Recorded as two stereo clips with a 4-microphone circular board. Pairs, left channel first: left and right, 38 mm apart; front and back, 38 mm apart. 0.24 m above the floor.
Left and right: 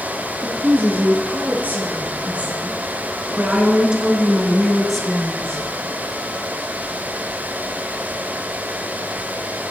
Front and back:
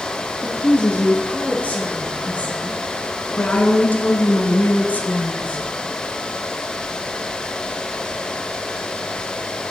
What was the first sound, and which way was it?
A woman speaking, 55° right.